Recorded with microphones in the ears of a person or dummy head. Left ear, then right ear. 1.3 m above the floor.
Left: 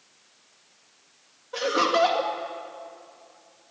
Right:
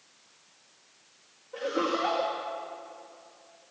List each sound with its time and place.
1.5 s laughter: 60° left (ahead or behind), 2 m